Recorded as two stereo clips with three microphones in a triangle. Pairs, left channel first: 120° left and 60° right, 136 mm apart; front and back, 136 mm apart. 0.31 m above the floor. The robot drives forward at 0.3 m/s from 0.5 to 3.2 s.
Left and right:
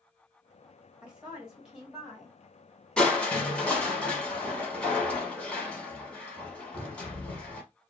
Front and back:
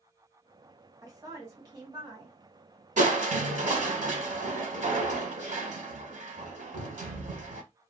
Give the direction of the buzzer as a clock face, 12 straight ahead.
No buzzer in this recording.